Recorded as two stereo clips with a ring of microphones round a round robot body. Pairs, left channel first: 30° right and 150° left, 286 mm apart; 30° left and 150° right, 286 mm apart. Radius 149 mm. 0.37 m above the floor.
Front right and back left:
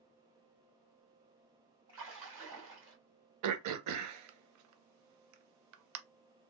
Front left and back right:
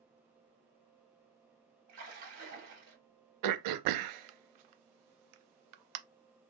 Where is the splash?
175° right, 2.5 m.